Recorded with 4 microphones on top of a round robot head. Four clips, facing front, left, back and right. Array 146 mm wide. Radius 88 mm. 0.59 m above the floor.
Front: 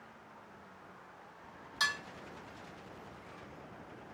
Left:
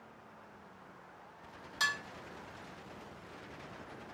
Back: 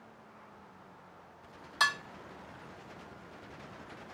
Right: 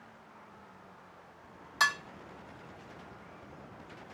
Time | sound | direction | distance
1.8 | dishes clattering | 135° right | 0.9 m